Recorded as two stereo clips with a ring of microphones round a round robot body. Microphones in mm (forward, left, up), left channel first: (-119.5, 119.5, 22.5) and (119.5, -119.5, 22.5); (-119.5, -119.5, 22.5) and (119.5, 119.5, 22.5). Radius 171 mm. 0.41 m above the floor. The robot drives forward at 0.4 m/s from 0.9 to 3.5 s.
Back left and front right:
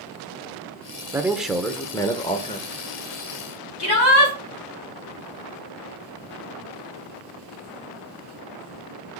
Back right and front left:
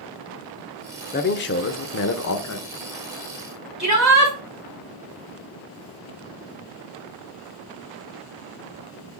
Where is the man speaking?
120° right, 0.8 m; by 2.6 s 160° right, 1.1 m.